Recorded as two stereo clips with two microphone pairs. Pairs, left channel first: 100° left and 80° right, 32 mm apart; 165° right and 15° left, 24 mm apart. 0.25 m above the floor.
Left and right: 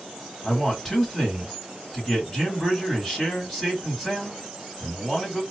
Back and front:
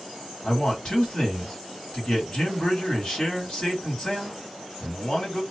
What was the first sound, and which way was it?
A man speaking, straight behind.